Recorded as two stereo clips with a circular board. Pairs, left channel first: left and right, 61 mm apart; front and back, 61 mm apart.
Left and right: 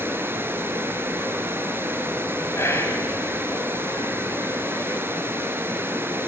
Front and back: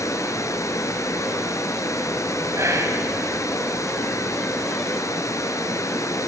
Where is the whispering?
140° left, 3.5 m.